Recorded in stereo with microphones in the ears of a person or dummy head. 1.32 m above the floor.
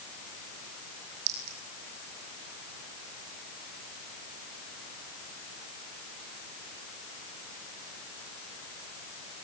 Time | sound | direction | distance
1.3 | a clink | 55° right (ahead or behind) | 5.5 m